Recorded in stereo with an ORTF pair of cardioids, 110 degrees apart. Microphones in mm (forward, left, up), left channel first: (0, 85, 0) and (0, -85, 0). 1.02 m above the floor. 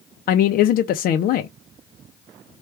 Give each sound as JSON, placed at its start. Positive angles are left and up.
{"t": 0.3, "sound": "a man speaking", "azimuth_deg": 60, "distance_m": 0.5}